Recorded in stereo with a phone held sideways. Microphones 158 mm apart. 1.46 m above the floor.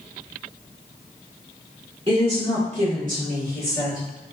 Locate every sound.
2.1 s a woman speaking: 35° right (ahead or behind), 1.6 m; by 4.1 s 70° right (ahead or behind), 2.0 m